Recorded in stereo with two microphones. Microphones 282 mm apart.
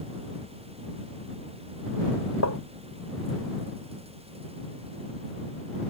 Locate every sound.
2.4 s tapping: 70° left (ahead or behind)